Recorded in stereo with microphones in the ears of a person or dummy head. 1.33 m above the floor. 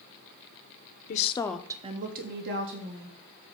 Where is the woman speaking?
45° left (ahead or behind), 0.8 m; by 3.2 s 70° right (ahead or behind), 2 m.